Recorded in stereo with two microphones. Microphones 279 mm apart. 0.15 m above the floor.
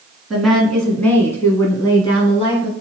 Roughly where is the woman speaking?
Centre.